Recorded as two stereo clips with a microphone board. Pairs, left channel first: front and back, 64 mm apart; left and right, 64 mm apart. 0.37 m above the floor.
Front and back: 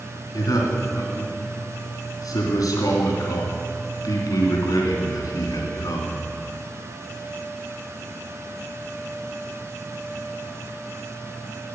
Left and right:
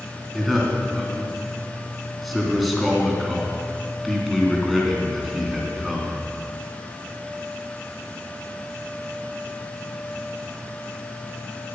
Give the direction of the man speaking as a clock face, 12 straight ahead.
12 o'clock.